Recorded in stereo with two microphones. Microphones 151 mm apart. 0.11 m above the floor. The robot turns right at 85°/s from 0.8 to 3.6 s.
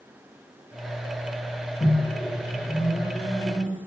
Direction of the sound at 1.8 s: 20° left (ahead or behind).